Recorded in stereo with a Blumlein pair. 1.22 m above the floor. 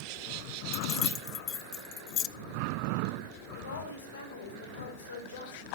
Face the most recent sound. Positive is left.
turn(degrees=65)